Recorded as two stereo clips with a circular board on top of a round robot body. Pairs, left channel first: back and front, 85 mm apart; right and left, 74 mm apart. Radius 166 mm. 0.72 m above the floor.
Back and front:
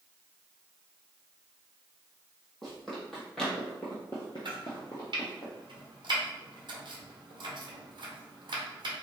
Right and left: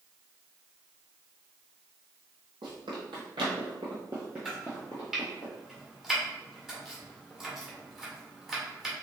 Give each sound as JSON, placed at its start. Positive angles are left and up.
{"t": 2.6, "sound": "running footsteps", "azimuth_deg": 85, "distance_m": 1.6}
{"t": 4.5, "sound": "chopping", "azimuth_deg": 10, "distance_m": 1.7}